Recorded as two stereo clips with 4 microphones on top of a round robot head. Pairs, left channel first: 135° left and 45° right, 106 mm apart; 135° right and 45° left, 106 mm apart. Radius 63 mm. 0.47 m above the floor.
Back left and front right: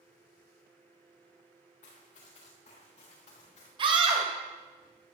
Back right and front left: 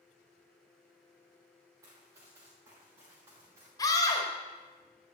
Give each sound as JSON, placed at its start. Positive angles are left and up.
{"t": 1.8, "sound": "running footsteps", "azimuth_deg": 110, "distance_m": 3.5}
{"t": 3.8, "sound": "a scream", "azimuth_deg": -80, "distance_m": 2.5}